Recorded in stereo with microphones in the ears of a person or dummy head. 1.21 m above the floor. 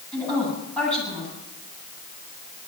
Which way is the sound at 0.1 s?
10° left (ahead or behind).